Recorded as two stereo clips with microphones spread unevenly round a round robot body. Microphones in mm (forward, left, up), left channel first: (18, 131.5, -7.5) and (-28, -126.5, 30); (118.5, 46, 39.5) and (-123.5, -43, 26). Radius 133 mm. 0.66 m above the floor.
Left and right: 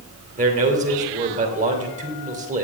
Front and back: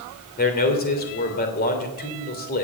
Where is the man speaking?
35° right, 3 m.